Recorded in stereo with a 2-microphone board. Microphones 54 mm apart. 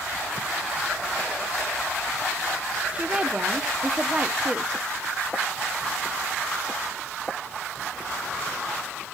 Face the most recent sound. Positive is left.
turn(degrees=-20)  # may be behind; listen again after turning